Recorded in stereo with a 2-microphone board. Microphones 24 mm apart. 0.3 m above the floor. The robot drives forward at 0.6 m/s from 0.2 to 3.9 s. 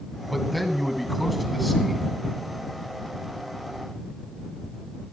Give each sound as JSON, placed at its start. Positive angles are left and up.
{"t": 0.3, "sound": "a man speaking", "side_deg": 0, "distance_m": 1.7}